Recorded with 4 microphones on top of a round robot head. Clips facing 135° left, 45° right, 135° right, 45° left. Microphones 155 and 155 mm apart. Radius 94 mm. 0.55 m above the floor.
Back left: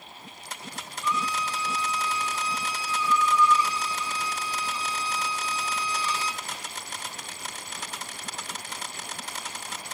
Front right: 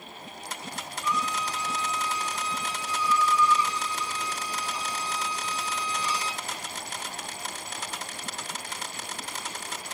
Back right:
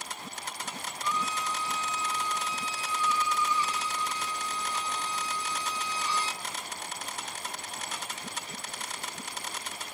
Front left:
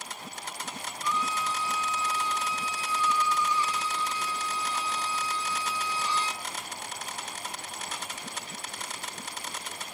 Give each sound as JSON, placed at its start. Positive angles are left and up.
{"t": 1.0, "sound": "a violin", "azimuth_deg": 155, "distance_m": 2.0}